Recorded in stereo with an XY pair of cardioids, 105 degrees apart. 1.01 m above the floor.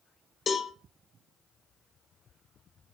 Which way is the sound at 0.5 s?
40° left.